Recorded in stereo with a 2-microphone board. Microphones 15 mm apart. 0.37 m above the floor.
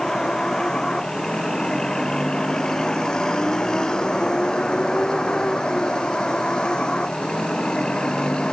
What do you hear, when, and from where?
0.0 s a vehicle: 35° left (ahead or behind); by 8.5 s 75° left (ahead or behind)